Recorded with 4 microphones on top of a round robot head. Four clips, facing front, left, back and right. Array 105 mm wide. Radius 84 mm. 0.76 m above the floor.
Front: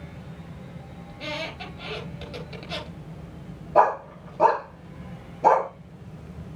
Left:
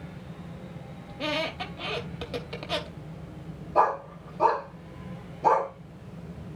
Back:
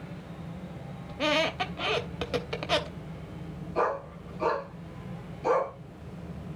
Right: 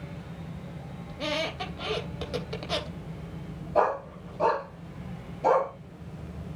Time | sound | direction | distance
1.1 | a squeak | 175° right | 0.7 m
3.8 | a dog barking | 5° left | 1.6 m